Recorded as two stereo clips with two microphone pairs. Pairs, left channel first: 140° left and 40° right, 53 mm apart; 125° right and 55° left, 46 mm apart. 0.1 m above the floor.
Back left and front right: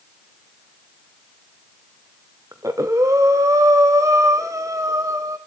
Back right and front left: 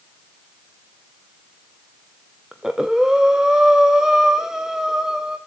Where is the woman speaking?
I don't hear a woman speaking.